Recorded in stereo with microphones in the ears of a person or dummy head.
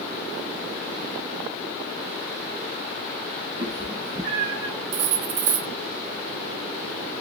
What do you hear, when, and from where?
3.6 s a cat meowing: 25° right (ahead or behind), 3.5 m; by 4.7 s 15° right (ahead or behind), 3 m
4.9 s cutlery clinking: 35° right (ahead or behind), 0.8 m